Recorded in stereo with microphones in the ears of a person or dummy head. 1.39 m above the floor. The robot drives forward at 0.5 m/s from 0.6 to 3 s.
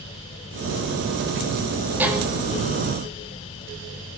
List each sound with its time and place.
2.0 s a violin: 10° right (ahead or behind), 2.5 m